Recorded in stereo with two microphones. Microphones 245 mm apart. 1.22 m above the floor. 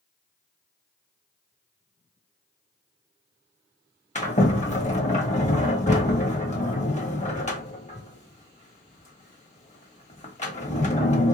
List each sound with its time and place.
4.2 s a sliding door: 30° left (ahead or behind), 1.6 m